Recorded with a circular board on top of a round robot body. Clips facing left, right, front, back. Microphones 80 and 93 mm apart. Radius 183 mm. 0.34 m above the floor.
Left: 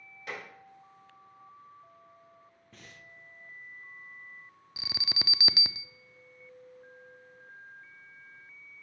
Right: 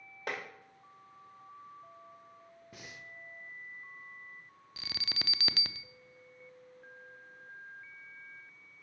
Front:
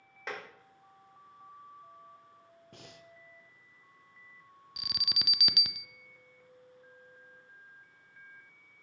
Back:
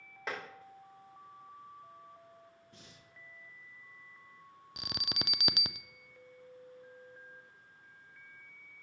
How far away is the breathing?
About 0.7 m.